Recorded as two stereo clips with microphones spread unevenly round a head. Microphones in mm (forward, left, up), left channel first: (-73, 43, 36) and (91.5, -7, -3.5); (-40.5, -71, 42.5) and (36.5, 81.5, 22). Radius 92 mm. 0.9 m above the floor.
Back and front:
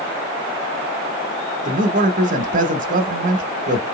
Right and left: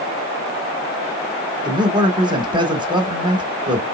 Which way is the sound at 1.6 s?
5° left.